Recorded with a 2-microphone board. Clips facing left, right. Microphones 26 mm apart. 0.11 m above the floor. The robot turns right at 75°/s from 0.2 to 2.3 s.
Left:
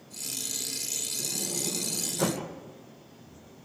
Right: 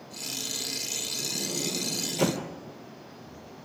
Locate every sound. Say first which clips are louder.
1.2 s a sliding door: right 2 dB; 160° right, 3 m; by 2.5 s 75° right, 3 m